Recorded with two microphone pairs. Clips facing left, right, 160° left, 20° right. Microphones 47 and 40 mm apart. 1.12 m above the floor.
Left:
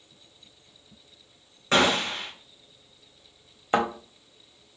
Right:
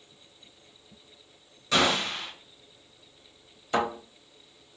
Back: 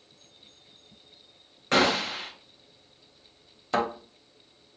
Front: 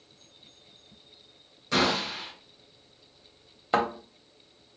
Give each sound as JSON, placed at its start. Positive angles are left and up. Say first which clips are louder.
{"t": 1.7, "sound": "a gunshot", "louder": "left 3 dB, back 3 dB", "azimuth_deg": 130, "distance_m": 1.0}
{"t": 3.7, "sound": "a thud", "louder": "left 3 dB, front 1 dB", "azimuth_deg": 45, "distance_m": 1.0}